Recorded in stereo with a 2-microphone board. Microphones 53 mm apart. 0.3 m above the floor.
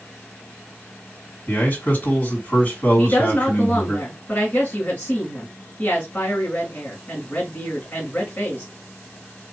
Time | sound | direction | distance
1.5 | a man speaking | 40° left (ahead or behind) | 2.5 m
3.0 | a woman speaking | 30° left (ahead or behind) | 1.7 m